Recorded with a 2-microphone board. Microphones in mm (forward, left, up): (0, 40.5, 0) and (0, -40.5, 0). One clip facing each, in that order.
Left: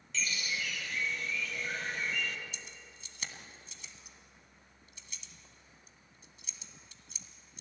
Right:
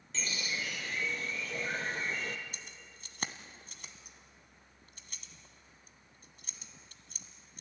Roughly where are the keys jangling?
Right.